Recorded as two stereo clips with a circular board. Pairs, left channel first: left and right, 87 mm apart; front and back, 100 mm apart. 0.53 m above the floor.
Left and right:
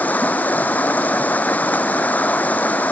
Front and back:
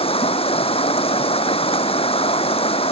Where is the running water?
20° left.